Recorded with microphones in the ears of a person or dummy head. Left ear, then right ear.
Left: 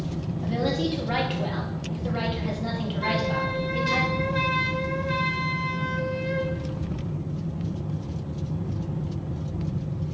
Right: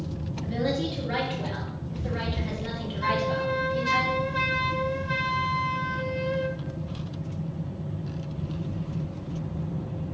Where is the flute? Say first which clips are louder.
Right 1 dB; 5° left (ahead or behind), 0.9 m.